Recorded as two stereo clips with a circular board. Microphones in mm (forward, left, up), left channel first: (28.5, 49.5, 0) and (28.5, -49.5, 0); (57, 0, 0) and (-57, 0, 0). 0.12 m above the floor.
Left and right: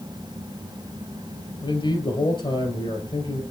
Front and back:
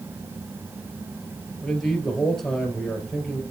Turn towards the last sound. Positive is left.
turn(degrees=85)